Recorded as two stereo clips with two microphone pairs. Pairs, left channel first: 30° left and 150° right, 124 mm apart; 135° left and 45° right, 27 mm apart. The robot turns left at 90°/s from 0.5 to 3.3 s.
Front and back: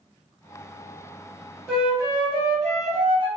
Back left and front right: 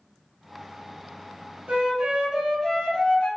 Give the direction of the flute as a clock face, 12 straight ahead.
2 o'clock.